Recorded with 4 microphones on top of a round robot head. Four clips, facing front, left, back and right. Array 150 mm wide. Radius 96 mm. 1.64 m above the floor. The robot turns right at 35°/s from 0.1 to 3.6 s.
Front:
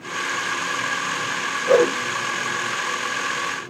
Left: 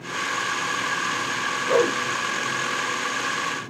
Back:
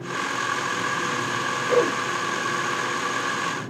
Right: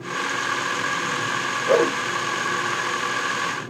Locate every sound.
1.7 s a whoosh: 45° right, 4 m; by 2.0 s 35° right, 4 m